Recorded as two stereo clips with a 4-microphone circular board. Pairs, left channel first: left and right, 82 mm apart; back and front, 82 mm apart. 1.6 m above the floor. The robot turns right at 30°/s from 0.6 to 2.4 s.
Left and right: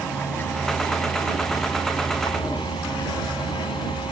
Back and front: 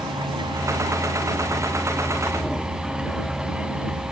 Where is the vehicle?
20° left; by 4.1 s 75° left.